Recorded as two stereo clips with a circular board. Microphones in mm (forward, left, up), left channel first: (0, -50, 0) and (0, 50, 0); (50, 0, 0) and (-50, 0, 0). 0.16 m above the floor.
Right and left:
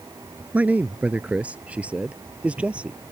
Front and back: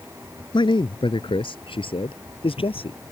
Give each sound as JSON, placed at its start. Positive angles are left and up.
{"t": 0.5, "sound": "a man speaking", "azimuth_deg": 15}